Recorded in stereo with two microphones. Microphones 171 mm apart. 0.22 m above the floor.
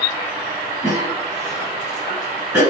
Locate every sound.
0.8 s a cough: 20° right (ahead or behind), 1.9 m